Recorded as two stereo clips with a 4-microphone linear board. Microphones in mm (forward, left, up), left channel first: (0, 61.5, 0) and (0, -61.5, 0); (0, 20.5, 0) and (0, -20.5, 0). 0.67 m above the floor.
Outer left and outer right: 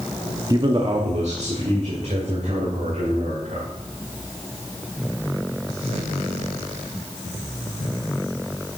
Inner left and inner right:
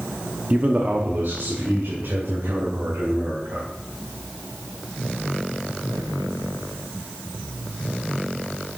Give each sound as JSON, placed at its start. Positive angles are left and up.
{"t": 0.5, "sound": "a man speaking", "side_deg": -30, "distance_m": 0.7}